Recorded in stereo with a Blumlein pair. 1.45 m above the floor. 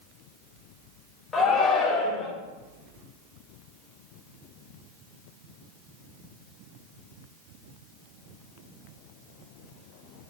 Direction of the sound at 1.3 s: 20° left.